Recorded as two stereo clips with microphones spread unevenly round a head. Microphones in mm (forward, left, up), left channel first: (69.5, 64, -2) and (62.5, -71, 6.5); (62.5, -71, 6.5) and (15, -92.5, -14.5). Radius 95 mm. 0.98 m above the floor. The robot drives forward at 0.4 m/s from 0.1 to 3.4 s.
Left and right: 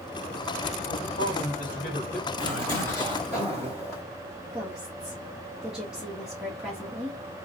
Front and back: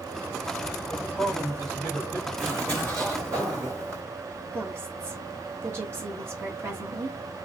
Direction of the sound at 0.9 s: 100° left.